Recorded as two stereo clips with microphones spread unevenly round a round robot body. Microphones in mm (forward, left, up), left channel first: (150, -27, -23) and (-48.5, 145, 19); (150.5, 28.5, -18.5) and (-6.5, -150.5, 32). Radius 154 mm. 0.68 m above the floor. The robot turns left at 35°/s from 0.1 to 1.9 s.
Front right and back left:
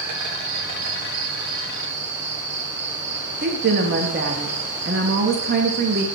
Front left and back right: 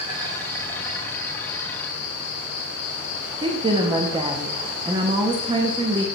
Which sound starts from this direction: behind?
An insect, at 0.0 s.